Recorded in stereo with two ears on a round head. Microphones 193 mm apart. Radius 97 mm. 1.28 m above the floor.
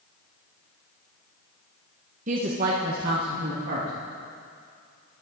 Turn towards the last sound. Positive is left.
turn(degrees=-55)  # may be behind; listen again after turning